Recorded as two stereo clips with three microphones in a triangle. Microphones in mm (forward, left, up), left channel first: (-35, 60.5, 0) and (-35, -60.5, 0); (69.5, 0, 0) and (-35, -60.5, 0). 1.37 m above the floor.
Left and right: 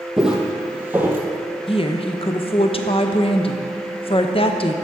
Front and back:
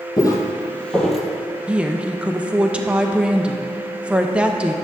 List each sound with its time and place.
0.2 s footsteps: 5° right, 1.7 m; by 1.2 s 65° right, 1.4 m
1.7 s a woman speaking: 130° left, 0.7 m